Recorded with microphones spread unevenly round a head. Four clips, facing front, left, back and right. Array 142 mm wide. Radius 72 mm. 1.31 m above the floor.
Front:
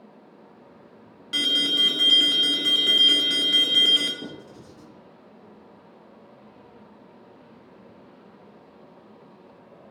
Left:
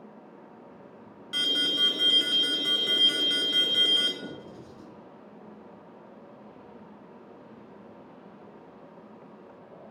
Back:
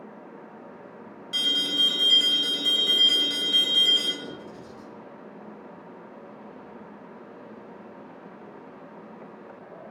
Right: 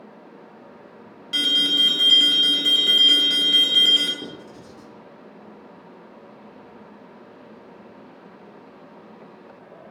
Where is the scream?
No scream in this recording.